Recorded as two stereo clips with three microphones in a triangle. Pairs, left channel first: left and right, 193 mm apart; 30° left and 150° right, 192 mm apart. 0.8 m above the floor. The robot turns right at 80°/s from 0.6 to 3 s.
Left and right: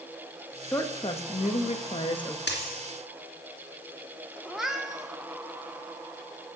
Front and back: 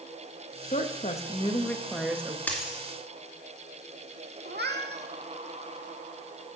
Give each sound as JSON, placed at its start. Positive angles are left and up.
{"t": 0.7, "sound": "a woman speaking", "azimuth_deg": 20, "distance_m": 1.2}
{"t": 2.5, "sound": "a dropped coin", "azimuth_deg": 110, "distance_m": 2.5}
{"t": 4.5, "sound": "a cat meowing", "azimuth_deg": -175, "distance_m": 1.2}